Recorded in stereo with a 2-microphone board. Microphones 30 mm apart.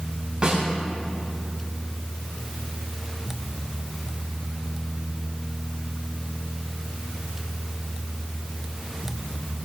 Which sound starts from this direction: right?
A snare drum, at 0.4 s.